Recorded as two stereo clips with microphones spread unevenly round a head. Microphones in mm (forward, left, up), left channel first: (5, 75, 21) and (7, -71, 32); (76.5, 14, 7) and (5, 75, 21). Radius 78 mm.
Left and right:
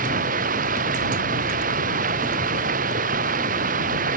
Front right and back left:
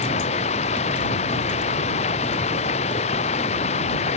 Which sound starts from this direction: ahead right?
Running water, at 0.0 s.